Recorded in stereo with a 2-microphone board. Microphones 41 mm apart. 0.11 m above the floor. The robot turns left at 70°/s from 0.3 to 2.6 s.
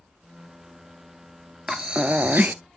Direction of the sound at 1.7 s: 10° right.